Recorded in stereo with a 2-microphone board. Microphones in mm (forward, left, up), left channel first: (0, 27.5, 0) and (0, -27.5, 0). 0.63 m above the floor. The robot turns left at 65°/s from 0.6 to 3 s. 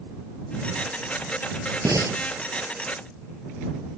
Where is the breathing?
85° right; by 2.2 s 65° right (ahead or behind).